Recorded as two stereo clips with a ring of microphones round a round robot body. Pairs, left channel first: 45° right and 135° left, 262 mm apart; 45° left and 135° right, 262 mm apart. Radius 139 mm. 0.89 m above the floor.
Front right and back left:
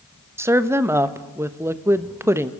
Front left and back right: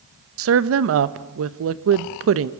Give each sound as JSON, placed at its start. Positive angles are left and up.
{"t": 0.4, "sound": "a woman speaking", "azimuth_deg": -145, "distance_m": 1.1}